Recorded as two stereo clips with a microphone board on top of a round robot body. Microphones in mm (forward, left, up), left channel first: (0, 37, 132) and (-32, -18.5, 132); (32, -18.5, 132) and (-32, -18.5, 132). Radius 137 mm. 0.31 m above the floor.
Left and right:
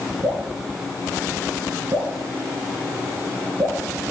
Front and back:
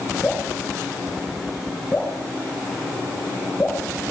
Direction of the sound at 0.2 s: 75° right.